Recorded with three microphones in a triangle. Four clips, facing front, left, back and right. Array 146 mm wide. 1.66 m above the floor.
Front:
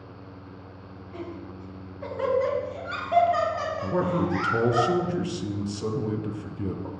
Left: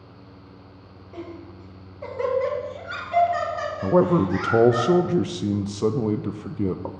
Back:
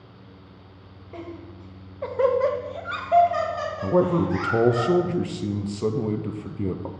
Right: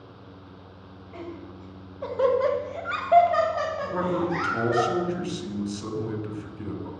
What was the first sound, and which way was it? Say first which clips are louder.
Laughter: left 1 dB, even; 175° left.